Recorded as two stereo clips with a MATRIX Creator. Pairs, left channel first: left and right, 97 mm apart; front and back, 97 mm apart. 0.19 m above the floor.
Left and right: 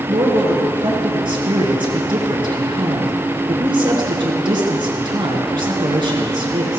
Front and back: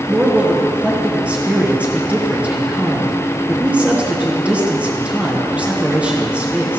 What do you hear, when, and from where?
0.1 s a man speaking: 105° right, 2.5 m